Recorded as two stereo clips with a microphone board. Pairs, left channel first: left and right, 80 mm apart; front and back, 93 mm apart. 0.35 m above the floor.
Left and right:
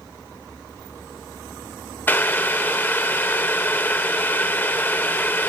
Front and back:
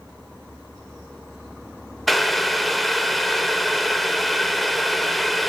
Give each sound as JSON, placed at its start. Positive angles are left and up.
{"t": 2.1, "sound": "boiling", "azimuth_deg": 90, "distance_m": 0.7}